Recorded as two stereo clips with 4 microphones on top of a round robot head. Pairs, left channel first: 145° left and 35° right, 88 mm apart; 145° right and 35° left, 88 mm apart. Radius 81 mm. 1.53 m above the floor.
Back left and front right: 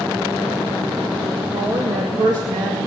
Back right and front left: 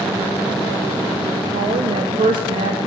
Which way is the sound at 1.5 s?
15° left.